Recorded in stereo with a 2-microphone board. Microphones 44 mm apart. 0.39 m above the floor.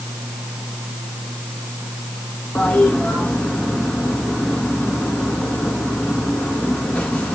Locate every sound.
2.5 s a toilet flushing: 30° left (ahead or behind), 2.5 m